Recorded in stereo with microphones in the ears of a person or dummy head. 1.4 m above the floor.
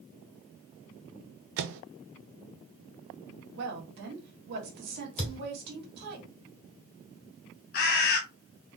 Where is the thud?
35° left (ahead or behind), 2.5 m.